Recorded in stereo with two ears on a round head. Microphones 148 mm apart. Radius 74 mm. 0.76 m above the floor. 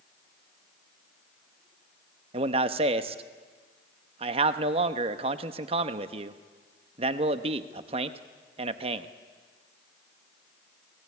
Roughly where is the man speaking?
Right.